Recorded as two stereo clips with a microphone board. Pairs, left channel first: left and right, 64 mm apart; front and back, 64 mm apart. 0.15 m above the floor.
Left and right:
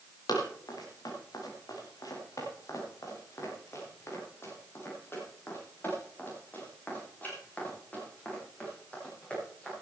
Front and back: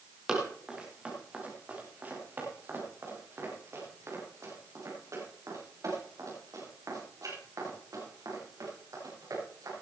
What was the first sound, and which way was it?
Running footsteps, 100° left.